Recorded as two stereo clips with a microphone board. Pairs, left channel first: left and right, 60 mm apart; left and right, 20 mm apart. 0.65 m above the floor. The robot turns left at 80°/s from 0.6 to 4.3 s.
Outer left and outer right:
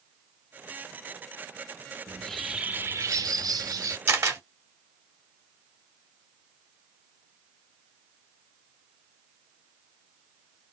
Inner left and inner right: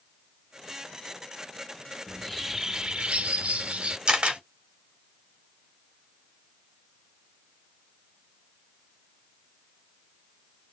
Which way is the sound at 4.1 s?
40° right (ahead or behind).